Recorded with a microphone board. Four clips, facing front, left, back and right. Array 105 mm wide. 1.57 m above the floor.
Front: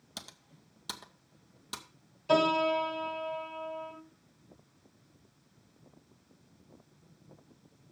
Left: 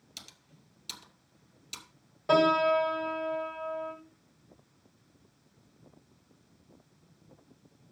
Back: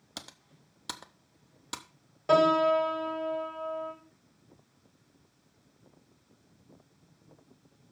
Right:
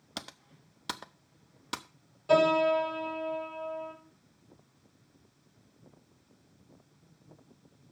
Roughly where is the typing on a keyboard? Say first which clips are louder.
Right 13 dB, back 2 dB; right.